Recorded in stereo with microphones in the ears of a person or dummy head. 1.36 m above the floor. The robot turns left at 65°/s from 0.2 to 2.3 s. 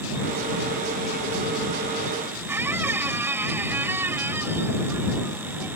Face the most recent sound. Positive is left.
turn(degrees=-10)  # may be behind; listen again after turning